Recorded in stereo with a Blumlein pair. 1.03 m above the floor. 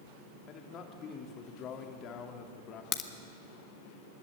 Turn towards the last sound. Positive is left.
turn(degrees=30)